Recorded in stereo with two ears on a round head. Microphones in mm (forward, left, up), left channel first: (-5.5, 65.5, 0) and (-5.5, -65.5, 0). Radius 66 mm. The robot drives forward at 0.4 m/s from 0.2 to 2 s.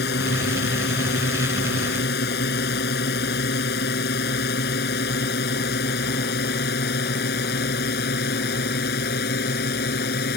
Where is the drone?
80° left; by 10.4 s 75° left (ahead or behind).